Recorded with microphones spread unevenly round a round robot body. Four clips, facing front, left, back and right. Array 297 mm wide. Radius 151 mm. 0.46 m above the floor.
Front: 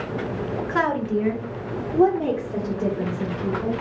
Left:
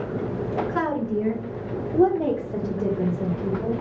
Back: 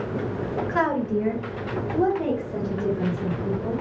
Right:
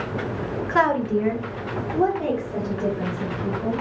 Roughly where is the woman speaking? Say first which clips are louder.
Right 9 dB, front 1 dB; right.